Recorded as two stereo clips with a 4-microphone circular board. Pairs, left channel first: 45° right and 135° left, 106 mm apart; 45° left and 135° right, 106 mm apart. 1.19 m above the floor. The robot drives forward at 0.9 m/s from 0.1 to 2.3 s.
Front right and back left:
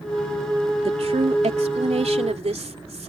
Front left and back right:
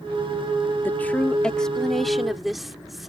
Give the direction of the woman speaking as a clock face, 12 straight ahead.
8 o'clock.